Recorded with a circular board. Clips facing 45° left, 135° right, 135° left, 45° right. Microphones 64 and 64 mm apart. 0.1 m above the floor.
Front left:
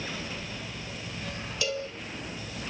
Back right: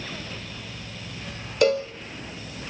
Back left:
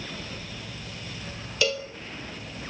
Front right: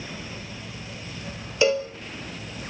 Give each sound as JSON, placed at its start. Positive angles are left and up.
{"t": 1.6, "sound": "a cowbell", "azimuth_deg": -105, "distance_m": 1.6}